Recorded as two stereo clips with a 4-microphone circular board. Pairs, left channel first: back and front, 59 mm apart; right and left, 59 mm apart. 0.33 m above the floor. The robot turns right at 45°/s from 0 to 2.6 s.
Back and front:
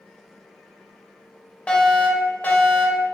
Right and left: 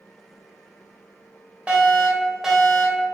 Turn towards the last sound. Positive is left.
turn(degrees=175)